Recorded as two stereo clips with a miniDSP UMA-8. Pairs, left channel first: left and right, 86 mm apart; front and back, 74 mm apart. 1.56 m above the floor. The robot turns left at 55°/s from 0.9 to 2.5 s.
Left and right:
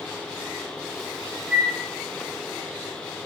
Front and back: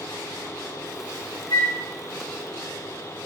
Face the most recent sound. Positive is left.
turn(degrees=-70)